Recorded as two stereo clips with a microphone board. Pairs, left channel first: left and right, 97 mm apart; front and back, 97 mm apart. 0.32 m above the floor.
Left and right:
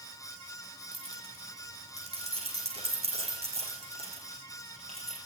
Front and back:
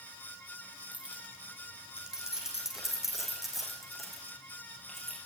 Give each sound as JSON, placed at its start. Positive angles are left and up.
{"t": 0.9, "sound": "keys jangling", "azimuth_deg": -105, "distance_m": 7.5}